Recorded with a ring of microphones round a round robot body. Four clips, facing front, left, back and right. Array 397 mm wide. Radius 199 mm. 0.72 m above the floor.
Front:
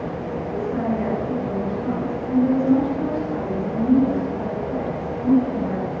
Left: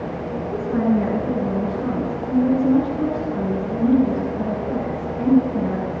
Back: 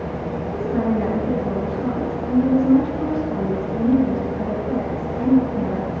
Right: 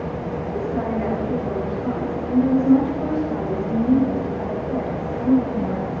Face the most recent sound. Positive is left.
turn(degrees=130)